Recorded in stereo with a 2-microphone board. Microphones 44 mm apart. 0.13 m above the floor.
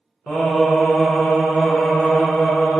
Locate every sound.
0.3 s singing: 10° left (ahead or behind), 1.0 m